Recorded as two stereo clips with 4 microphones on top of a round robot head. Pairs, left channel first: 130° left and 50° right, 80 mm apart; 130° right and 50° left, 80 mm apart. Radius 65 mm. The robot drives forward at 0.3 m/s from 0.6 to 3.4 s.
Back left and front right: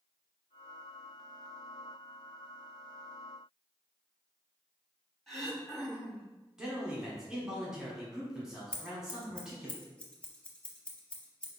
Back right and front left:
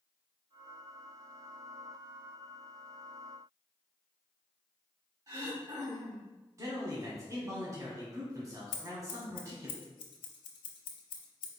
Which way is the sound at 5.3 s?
40° left.